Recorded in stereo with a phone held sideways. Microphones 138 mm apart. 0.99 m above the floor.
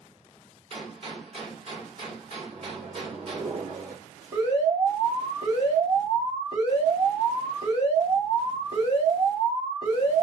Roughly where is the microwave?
Right.